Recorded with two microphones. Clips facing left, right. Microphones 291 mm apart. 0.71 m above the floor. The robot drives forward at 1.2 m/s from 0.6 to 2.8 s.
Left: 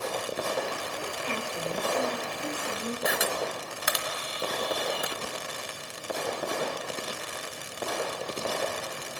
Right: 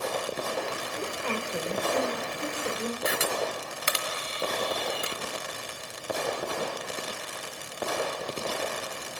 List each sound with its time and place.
1.0 s a woman speaking: 65° right (ahead or behind), 3 m
3.0 s a camera shutter: 30° right (ahead or behind), 1.3 m